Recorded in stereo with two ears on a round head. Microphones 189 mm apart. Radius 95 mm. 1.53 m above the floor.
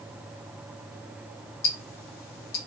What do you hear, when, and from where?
1.6 s ticking: 45° left (ahead or behind), 0.6 m